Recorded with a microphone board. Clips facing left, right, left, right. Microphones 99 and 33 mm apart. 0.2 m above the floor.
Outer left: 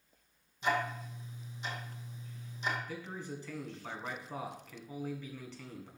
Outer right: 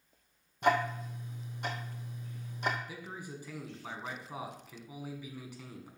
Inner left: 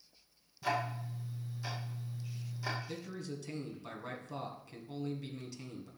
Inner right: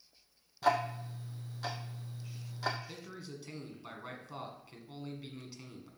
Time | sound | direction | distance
0.6 | ticking | 50° right (ahead or behind) | 1.7 m
2.9 | a man speaking | 10° right (ahead or behind) | 1.9 m